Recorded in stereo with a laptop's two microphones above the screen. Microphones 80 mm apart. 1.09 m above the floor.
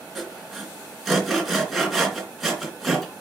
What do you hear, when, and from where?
0.1 s sawing: centre (ahead or behind), 3 m